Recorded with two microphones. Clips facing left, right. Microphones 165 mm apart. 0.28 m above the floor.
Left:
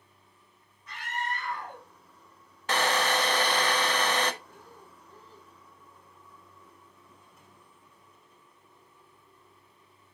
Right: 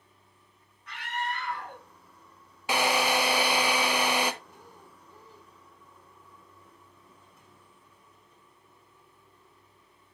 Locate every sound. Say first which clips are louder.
0.9 s a scream: right 1 dB; 70° right (ahead or behind), 3 m
2.7 s a drill: right 1 dB; 10° right (ahead or behind), 0.8 m
4.5 s breathing: left 1 dB; 15° right (ahead or behind), 1.0 m